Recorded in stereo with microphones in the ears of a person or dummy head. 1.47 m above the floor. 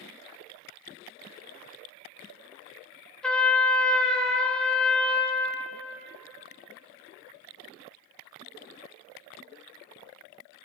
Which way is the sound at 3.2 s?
5° left (ahead or behind).